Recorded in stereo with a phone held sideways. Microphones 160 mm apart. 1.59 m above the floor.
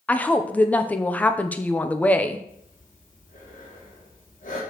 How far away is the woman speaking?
About 0.7 m.